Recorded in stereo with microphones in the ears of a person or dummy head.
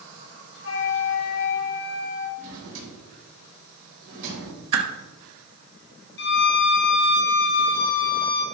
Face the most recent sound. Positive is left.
turn(degrees=60)  # may be behind; listen again after turning